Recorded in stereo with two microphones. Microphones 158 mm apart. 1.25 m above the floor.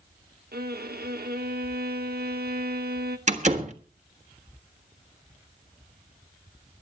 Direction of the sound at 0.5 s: 80° right.